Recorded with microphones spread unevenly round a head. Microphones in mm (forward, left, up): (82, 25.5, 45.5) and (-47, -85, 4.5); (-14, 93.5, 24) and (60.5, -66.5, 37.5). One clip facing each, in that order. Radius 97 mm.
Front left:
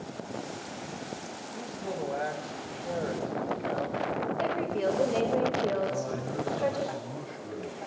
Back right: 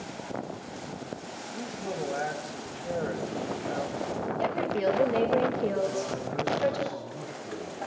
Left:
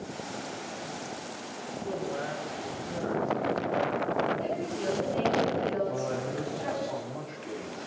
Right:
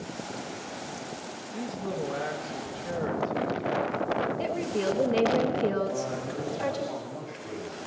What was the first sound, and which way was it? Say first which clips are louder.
A man speaking: back right 1 dB, right 3 dB; 45° right.